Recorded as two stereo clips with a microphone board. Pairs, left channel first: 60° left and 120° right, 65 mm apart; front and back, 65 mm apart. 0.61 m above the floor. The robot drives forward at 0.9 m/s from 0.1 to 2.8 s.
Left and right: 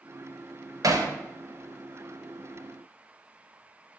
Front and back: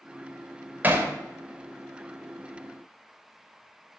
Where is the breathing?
No breathing in this recording.